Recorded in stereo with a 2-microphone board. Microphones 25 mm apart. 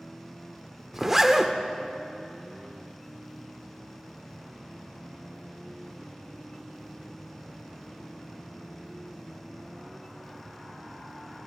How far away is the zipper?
About 0.5 m.